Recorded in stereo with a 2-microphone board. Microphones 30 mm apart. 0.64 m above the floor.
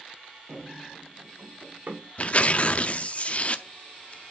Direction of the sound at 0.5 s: 55° right (ahead or behind).